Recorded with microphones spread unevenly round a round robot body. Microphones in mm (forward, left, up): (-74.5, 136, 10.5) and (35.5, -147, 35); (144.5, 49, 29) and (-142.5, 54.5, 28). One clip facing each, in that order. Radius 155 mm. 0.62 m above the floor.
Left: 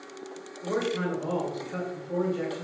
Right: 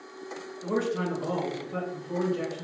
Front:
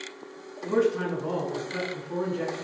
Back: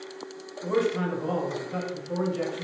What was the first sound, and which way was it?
A man speaking, 155° right.